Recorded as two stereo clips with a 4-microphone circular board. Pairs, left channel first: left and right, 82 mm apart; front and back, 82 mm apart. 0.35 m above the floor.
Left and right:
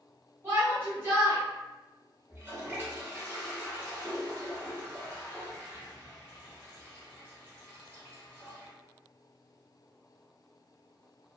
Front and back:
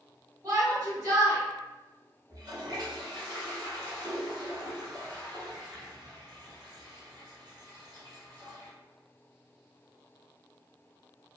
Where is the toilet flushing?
150° right, 1.1 m.